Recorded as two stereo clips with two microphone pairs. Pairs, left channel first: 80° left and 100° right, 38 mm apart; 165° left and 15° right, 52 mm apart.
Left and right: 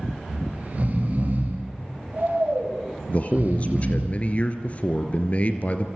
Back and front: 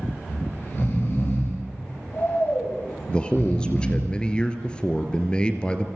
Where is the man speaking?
105° left, 2.0 m.